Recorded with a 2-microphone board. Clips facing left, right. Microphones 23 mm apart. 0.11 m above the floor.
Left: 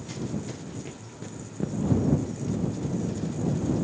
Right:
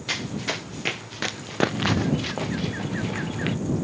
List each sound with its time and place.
0.1 s running footsteps: 60° right (ahead or behind); by 3.6 s 65° right (ahead or behind)